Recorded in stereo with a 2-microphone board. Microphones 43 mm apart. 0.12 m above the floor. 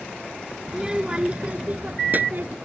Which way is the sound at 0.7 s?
15° right (ahead or behind).